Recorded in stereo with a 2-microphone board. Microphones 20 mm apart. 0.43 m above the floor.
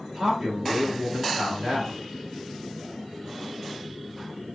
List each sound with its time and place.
0.1 s a man speaking: 35° right (ahead or behind), 1.5 m